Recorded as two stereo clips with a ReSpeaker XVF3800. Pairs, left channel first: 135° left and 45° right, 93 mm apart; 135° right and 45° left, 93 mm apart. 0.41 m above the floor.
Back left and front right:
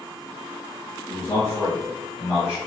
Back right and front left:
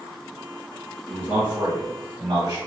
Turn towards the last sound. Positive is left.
turn(degrees=25)